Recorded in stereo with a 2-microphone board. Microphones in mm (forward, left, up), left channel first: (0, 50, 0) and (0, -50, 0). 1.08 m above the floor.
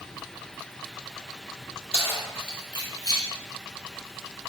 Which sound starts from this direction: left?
Keys jangling, at 1.9 s.